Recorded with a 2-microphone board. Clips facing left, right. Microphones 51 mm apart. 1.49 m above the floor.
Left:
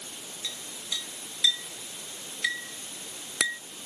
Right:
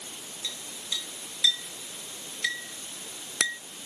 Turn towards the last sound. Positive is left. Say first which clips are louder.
# right 1 dB
turn(degrees=5)  # may be behind; listen again after turning